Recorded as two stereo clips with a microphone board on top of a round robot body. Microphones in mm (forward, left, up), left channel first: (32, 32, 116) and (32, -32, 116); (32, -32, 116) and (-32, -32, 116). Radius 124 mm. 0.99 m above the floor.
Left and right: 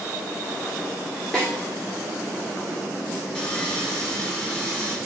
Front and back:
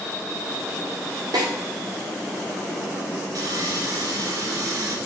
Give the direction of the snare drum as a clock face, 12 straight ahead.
6 o'clock.